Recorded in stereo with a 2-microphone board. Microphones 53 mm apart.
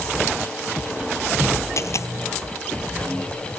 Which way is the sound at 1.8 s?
60° left (ahead or behind).